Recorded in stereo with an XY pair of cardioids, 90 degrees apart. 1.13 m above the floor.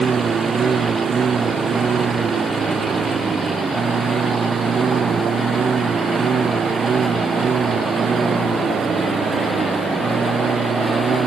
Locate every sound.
0.0 s a lawn mower: 40° right; by 11.3 s 45° right